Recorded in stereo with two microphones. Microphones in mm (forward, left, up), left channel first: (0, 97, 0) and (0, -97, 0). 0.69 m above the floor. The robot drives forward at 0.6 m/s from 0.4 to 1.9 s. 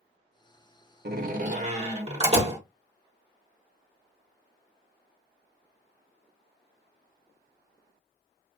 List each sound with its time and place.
1.1 s a door slam: 55° right (ahead or behind), 0.6 m; by 2.6 s 30° right (ahead or behind), 0.9 m